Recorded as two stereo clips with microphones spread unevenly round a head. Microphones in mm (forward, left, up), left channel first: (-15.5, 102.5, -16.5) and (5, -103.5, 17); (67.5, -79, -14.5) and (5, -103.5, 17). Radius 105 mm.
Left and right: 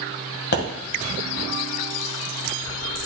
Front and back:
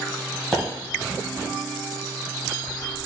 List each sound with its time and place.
0.5 s a pop: 135° left, 1.9 m